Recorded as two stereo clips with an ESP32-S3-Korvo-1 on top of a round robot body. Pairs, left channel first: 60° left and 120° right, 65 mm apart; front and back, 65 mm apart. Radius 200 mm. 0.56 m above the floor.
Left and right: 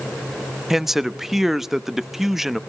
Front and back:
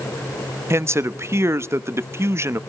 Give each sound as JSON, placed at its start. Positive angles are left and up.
{"t": 0.7, "sound": "a man speaking", "azimuth_deg": 155, "distance_m": 1.2}